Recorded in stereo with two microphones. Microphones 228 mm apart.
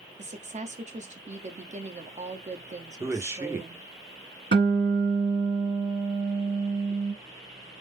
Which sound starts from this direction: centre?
A man speaking, at 3.0 s.